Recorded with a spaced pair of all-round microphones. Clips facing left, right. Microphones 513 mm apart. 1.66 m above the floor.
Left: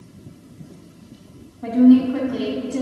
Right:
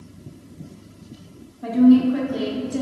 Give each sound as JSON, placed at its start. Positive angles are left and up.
{"t": 1.6, "sound": "a woman speaking", "side_deg": 10, "distance_m": 3.0}